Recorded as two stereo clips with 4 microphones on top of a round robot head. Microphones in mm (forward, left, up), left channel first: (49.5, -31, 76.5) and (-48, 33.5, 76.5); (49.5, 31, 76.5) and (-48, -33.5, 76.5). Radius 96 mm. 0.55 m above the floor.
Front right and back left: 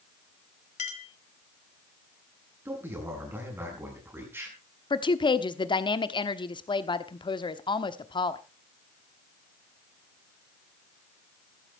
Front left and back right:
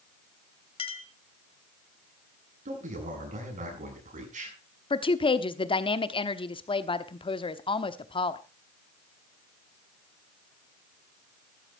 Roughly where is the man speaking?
Behind right.